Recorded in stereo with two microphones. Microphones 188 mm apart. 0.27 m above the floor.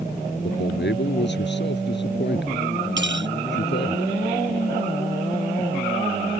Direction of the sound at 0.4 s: 70° left (ahead or behind).